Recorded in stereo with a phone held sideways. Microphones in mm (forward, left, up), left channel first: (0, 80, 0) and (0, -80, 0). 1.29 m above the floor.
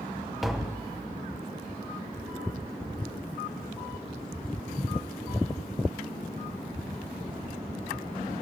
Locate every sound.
0.4 s tapping: centre (ahead or behind), 0.9 m